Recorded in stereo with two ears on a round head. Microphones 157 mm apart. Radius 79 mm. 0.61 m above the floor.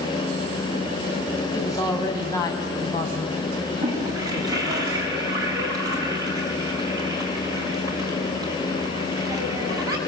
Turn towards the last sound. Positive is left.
turn(degrees=-20)  # may be behind; listen again after turning